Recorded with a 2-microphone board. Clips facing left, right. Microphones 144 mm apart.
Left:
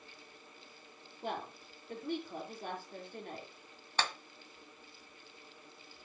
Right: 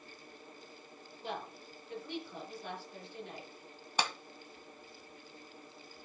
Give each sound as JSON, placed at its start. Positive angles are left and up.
{"t": 1.2, "sound": "a woman speaking", "side_deg": 50, "distance_m": 6.5}
{"t": 4.0, "sound": "a clap", "side_deg": -15, "distance_m": 1.4}